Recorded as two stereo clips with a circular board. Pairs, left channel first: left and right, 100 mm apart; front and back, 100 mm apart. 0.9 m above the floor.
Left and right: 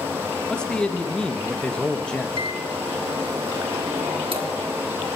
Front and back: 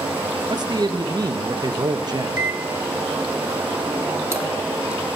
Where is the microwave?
120° right, 1.3 m.